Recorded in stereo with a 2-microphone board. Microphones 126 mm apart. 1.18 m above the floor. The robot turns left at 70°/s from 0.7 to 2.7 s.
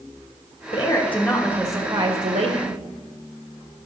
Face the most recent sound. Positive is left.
turn(degrees=-100)